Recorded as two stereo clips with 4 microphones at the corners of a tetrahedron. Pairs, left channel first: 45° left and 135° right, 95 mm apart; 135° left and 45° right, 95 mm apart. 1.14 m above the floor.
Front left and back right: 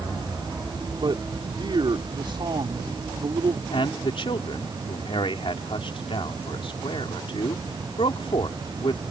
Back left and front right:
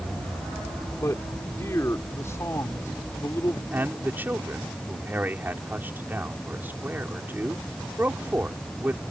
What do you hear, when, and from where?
1.0 s a man speaking: 165° right
3.7 s a man speaking: 25° left